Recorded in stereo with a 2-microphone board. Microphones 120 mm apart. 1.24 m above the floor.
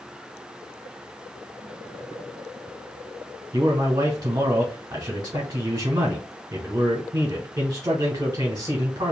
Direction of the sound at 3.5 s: 30° right (ahead or behind).